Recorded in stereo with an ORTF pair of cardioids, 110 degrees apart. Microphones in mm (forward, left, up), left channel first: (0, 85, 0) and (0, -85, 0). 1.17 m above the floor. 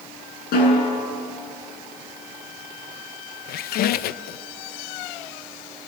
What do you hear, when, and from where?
0.5 s a snare drum: 65° left, 9.5 m
3.5 s a squeak: 65° left, 0.6 m